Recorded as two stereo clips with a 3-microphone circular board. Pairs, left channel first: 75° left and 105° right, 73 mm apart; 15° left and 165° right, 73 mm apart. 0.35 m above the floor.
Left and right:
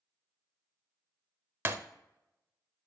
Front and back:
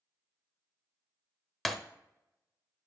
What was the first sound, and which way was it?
Breaking glass, 75° right.